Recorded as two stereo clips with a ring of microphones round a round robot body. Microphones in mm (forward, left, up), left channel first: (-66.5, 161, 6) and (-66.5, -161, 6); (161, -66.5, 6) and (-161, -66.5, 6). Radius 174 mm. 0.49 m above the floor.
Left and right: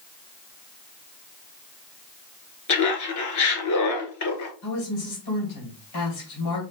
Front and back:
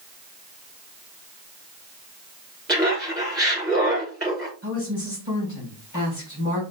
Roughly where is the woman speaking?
Ahead left.